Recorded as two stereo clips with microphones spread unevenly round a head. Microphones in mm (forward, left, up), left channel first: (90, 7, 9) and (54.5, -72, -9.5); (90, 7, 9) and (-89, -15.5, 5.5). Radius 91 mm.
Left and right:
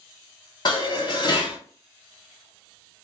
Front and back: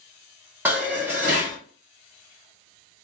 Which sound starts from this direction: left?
Dishes clattering, at 0.7 s.